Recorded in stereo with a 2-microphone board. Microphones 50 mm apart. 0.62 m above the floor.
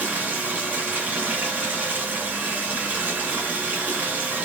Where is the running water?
35° right (ahead or behind), 1.8 m.